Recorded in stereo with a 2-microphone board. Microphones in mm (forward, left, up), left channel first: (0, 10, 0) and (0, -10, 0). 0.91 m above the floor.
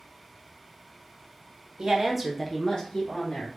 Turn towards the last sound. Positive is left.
turn(degrees=60)  # may be behind; listen again after turning